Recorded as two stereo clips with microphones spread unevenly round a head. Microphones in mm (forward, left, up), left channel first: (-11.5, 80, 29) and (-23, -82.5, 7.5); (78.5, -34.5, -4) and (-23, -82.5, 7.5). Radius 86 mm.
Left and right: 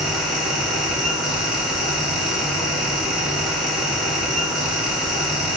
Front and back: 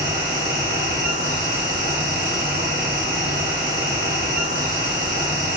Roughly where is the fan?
Behind.